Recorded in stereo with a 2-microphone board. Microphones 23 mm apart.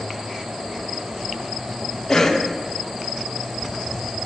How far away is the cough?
About 0.6 m.